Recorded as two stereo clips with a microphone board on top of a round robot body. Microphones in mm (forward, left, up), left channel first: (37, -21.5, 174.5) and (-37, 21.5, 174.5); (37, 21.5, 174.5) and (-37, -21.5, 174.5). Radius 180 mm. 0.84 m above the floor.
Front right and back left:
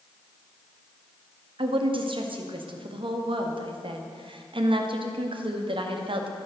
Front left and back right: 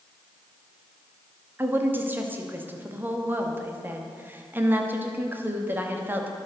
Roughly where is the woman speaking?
Behind left.